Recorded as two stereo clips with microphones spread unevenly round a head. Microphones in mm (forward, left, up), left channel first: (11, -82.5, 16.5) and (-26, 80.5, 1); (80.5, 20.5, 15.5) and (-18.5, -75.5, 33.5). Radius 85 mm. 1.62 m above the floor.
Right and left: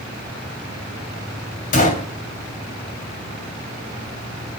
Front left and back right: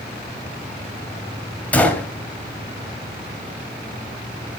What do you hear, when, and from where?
1.7 s a gunshot: 40° right, 2.5 m